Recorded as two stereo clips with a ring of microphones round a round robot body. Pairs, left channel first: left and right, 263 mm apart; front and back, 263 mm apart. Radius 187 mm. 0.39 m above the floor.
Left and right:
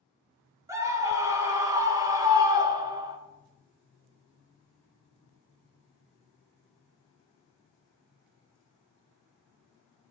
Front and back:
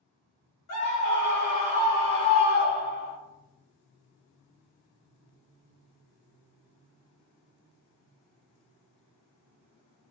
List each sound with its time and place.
0.7 s a scream: 10° right, 5.5 m; by 3.2 s 15° right, 4 m